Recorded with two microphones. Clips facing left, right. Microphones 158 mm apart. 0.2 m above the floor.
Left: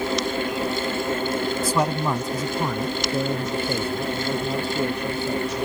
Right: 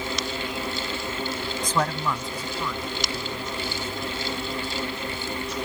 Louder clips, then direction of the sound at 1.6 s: Even; 5° left (ahead or behind).